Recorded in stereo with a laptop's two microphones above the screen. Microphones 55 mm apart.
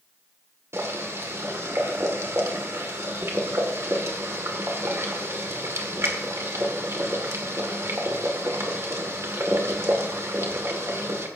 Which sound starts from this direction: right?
Boiling, at 0.7 s.